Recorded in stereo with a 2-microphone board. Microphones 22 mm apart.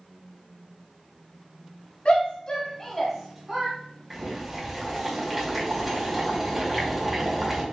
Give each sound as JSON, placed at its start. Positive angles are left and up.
{"t": 2.0, "sound": "a shout", "side_deg": 50, "distance_m": 1.7}
{"t": 4.1, "sound": "boiling", "side_deg": -10, "distance_m": 1.8}